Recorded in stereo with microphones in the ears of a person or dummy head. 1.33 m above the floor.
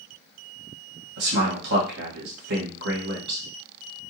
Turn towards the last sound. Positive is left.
turn(degrees=-55)  # may be behind; listen again after turning